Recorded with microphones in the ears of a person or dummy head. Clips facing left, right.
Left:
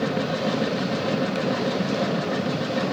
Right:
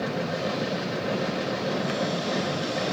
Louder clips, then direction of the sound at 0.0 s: Left 4 dB; 70° left (ahead or behind).